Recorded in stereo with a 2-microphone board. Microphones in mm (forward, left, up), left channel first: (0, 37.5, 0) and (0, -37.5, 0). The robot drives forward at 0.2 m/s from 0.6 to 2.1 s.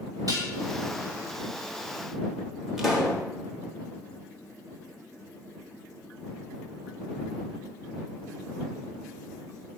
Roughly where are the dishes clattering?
Right.